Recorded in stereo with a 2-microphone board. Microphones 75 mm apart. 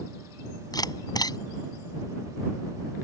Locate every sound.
0.7 s a camera shutter: 60° left (ahead or behind)